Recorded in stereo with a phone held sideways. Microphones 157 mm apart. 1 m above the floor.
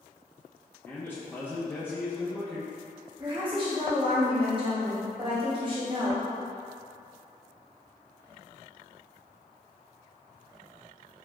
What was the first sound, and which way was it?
A man speaking, 10° left (ahead or behind).